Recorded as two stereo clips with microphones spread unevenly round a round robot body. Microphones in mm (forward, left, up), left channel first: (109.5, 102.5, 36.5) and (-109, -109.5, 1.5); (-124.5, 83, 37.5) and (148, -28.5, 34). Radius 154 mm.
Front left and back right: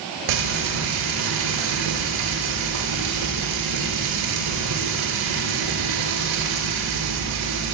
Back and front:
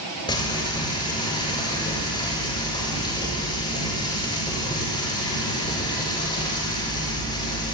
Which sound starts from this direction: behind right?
Frying, at 0.3 s.